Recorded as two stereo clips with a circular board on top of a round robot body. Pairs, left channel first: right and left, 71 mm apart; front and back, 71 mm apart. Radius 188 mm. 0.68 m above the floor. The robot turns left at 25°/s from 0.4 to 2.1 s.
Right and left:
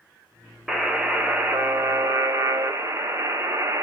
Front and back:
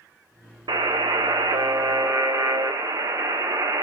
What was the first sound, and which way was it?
A buzzer, 175° left.